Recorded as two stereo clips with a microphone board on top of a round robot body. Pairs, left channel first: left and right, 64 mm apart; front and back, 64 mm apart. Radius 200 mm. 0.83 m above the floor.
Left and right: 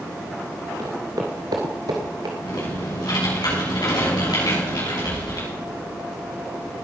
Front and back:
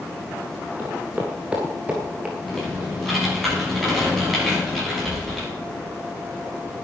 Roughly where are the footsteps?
Behind right.